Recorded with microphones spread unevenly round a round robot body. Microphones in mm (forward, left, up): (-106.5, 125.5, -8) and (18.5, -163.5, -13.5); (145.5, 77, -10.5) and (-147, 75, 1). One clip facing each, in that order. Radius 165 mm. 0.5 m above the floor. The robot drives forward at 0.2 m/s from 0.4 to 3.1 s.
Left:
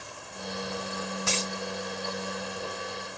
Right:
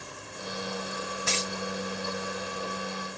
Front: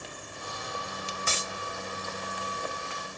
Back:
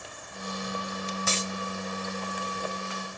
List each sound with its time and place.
1.3 s a dropped coin: 135° left, 1.7 m